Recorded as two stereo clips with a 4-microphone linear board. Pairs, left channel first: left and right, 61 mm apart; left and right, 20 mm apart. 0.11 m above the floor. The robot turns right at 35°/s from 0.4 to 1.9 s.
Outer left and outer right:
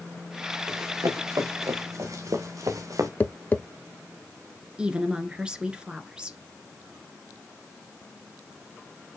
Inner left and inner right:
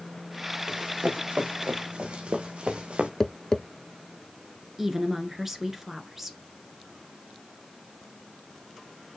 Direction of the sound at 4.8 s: 15° right (ahead or behind).